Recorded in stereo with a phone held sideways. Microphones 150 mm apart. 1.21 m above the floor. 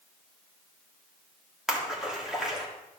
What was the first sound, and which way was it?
A splash, 5° right (ahead or behind).